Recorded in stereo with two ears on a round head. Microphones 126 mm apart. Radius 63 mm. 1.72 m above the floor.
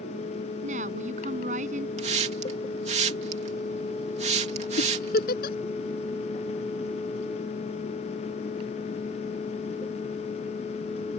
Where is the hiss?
50° right (ahead or behind).